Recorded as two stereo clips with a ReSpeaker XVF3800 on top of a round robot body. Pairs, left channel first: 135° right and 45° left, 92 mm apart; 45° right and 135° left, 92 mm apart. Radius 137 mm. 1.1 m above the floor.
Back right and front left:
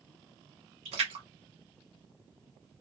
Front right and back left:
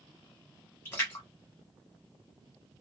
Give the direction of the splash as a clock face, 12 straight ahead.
11 o'clock.